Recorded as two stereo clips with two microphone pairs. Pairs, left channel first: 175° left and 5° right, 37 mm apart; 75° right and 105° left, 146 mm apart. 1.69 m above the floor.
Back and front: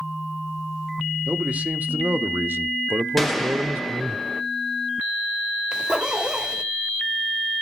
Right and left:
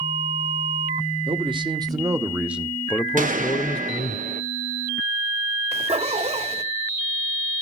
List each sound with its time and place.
1.3 s a man speaking: 50° left, 1.8 m; by 4.2 s 45° right, 1.3 m
3.2 s a gunshot: 90° left, 1.4 m
5.7 s a zipper: 65° left, 2.5 m